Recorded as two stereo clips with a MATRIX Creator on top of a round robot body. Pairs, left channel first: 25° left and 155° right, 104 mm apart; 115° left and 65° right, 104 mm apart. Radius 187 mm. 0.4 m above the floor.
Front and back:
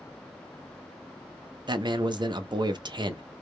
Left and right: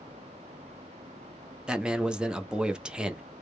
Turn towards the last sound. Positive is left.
turn(degrees=-145)